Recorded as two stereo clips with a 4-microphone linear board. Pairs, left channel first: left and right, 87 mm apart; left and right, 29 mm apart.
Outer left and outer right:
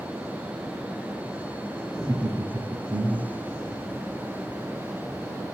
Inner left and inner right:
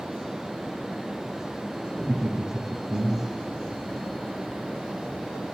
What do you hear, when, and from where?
1.9 s laughter: 35° right (ahead or behind), 2.5 m